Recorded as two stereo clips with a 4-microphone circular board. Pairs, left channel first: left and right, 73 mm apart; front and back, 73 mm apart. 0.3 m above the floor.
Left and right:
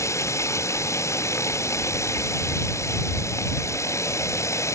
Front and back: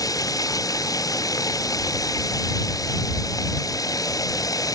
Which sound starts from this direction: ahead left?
Running water, at 0.0 s.